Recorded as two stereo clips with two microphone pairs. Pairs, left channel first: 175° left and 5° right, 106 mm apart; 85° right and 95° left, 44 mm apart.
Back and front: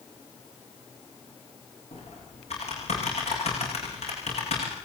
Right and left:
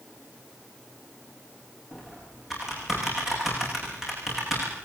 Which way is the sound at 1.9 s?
175° right.